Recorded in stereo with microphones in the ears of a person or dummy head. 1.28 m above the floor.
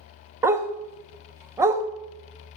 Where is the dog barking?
15° right (ahead or behind), 0.7 m.